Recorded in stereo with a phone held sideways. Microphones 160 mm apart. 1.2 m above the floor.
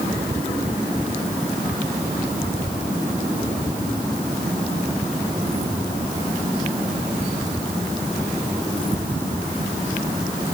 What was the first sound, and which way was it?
Only background noise.